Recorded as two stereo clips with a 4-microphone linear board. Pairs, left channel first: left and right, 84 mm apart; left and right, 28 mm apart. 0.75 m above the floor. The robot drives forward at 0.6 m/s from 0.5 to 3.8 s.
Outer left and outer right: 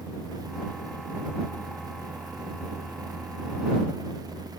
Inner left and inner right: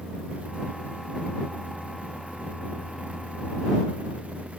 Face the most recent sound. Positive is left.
No sound to turn to.